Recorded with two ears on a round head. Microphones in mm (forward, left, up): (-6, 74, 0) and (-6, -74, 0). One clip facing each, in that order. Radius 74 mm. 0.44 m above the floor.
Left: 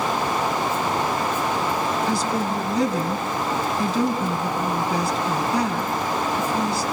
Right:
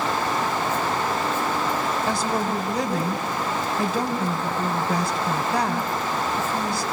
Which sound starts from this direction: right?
A woman speaking, at 2.1 s.